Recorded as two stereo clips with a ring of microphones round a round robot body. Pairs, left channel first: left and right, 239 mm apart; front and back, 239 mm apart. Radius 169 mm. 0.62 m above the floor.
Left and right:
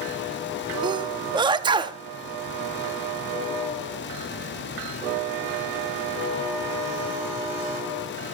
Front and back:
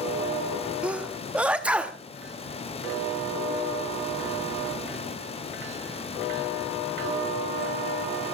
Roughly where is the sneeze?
Right.